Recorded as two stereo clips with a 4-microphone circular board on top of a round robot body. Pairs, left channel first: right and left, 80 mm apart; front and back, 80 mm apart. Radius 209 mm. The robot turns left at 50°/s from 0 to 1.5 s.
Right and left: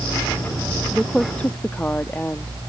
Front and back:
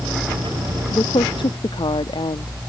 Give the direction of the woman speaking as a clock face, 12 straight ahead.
12 o'clock.